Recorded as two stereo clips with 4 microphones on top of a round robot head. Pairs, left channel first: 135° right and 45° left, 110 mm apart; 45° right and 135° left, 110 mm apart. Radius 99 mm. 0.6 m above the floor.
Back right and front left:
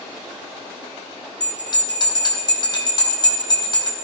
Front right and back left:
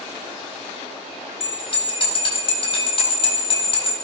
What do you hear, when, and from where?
1.4 s a bell: 85° right, 3.5 m